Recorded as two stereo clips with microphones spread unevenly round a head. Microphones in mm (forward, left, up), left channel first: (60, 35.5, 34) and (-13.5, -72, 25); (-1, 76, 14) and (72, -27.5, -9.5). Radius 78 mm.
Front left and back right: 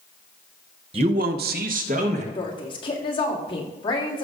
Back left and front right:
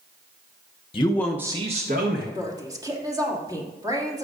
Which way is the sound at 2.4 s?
5° left.